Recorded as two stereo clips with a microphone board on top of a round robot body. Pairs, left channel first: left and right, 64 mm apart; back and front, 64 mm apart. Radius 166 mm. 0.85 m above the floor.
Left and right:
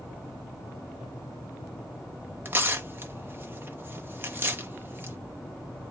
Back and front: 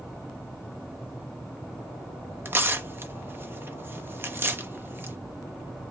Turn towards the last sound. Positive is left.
turn(degrees=-45)